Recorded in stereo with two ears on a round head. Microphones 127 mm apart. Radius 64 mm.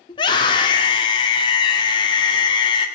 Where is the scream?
30° left (ahead or behind), 1.7 m.